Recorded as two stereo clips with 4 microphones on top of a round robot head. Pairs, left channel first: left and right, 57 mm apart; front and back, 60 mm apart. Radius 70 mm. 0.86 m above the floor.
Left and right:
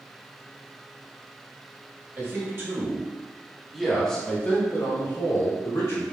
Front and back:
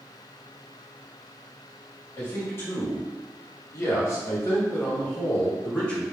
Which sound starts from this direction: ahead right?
A man speaking, at 2.2 s.